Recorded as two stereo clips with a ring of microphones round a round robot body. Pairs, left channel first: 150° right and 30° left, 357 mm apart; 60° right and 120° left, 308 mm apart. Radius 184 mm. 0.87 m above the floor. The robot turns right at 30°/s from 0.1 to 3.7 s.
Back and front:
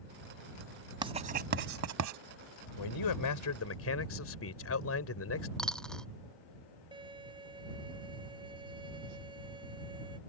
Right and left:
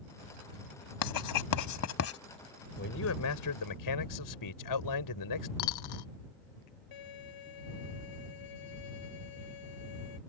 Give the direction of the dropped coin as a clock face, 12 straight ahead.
2 o'clock.